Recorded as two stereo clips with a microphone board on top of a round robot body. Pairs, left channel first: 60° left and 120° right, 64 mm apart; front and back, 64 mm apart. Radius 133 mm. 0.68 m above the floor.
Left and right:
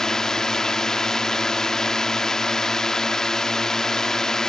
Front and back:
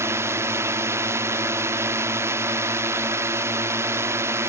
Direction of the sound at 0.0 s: 140° left.